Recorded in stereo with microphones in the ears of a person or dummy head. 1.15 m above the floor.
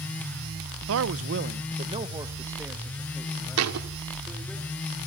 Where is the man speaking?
65° right (ahead or behind), 0.8 m; by 4.6 s 5° left (ahead or behind), 3.5 m.